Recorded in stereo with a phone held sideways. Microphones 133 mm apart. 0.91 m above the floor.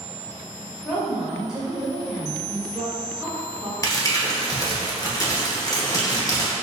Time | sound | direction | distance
0.8 | a woman speaking | 5° right (ahead or behind) | 1.6 m
3.8 | crumpling | 25° left (ahead or behind) | 0.8 m